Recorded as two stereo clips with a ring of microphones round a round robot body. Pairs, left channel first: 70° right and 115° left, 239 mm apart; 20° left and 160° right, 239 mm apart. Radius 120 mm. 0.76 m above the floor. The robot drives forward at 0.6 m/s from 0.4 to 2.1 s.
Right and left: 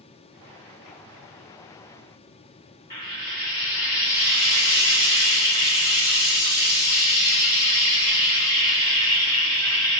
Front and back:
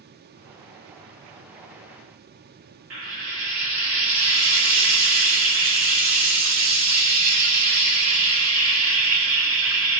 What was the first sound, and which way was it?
Frying, 145° right.